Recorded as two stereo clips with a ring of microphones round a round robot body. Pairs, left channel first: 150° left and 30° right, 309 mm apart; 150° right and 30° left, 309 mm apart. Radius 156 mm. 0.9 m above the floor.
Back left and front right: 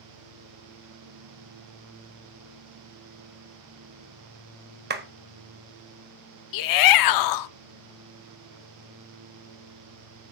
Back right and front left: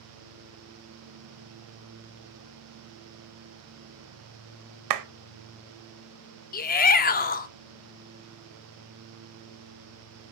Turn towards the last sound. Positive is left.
turn(degrees=150)